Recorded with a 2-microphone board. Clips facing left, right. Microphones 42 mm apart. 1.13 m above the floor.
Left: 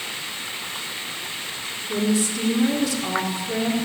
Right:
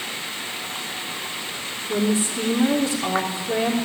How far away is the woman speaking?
About 3.5 m.